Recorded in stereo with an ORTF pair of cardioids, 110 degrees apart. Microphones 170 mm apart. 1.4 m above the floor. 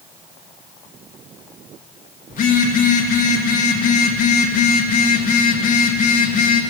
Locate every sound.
2.3 s a phone buzzing: 55° left, 1.3 m